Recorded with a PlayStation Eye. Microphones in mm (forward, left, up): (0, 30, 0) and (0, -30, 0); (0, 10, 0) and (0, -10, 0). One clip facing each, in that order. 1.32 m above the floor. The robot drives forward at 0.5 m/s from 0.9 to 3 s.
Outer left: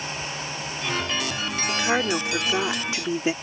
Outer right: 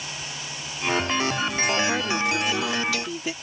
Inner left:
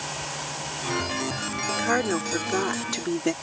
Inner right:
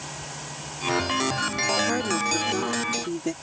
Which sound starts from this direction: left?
A woman speaking, at 1.7 s.